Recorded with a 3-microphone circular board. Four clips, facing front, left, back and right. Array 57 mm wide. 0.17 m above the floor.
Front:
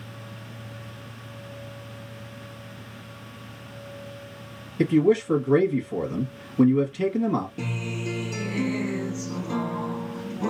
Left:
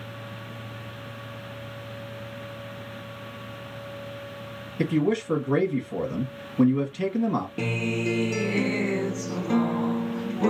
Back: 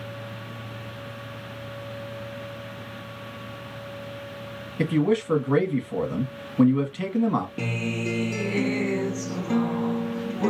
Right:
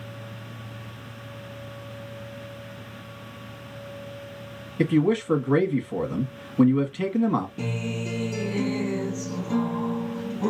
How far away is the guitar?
About 0.8 m.